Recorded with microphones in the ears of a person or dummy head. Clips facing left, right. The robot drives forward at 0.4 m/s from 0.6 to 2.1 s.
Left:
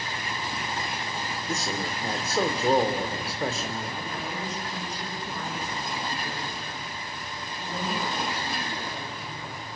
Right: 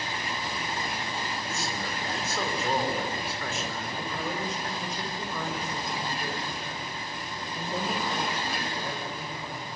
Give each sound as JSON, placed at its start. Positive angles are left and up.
{"t": 1.5, "sound": "a man speaking", "side_deg": 35, "distance_m": 2.5}
{"t": 4.0, "sound": "a woman speaking", "side_deg": -65, "distance_m": 5.5}